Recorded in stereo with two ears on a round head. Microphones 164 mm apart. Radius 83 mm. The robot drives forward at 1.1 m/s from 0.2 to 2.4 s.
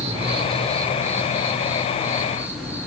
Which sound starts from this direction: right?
An insect, at 0.0 s.